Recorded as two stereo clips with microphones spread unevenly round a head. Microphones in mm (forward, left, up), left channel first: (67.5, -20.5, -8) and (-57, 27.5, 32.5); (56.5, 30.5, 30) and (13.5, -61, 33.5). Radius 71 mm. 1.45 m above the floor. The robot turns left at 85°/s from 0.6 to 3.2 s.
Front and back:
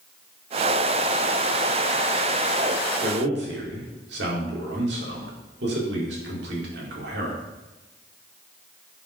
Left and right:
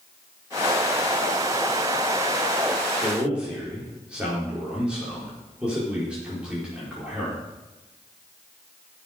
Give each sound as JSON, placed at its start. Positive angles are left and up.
{"t": 3.0, "sound": "a man speaking", "azimuth_deg": 180, "distance_m": 5.0}